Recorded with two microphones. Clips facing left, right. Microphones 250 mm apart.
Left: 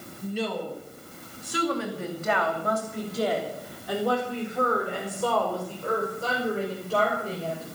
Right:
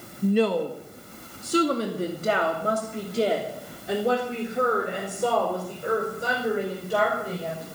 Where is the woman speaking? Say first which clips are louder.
Right 9 dB; 65° right (ahead or behind), 2.0 m; by 7.7 s 10° right (ahead or behind), 7 m.